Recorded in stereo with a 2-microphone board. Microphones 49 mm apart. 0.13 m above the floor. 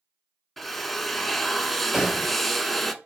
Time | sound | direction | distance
0.6 | a drill | 5° left (ahead or behind) | 0.6 m
1.9 | a gunshot | 5° right (ahead or behind) | 3.5 m